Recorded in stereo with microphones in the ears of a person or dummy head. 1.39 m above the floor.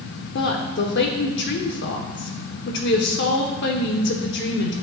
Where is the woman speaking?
55° left (ahead or behind), 1.0 m.